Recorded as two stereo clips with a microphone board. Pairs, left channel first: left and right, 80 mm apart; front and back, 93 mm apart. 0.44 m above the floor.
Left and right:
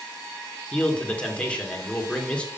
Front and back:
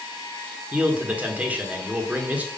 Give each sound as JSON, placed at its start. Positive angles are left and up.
{"t": 0.7, "sound": "a man speaking", "azimuth_deg": 140, "distance_m": 1.2}